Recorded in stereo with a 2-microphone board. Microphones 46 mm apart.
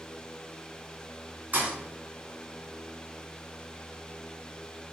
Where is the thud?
40° right (ahead or behind), 3 m.